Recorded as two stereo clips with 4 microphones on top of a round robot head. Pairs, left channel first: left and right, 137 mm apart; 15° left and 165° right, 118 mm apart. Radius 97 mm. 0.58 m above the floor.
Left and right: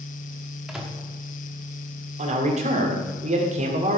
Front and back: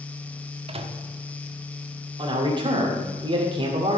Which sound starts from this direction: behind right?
A man speaking, at 2.2 s.